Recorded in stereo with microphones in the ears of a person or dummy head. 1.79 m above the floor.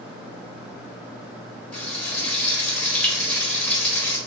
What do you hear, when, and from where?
1.7 s frying: 10° left (ahead or behind), 0.9 m